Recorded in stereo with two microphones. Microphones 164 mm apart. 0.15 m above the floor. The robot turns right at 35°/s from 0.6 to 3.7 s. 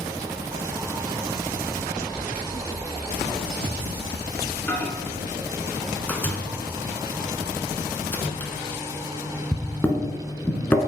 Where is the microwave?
10° left (ahead or behind), 1.3 m.